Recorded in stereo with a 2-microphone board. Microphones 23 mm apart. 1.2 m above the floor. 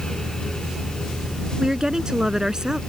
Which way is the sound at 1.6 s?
30° right (ahead or behind).